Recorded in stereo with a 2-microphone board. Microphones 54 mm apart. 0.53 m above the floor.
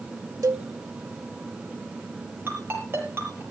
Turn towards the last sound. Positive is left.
turn(degrees=-45)  # may be behind; listen again after turning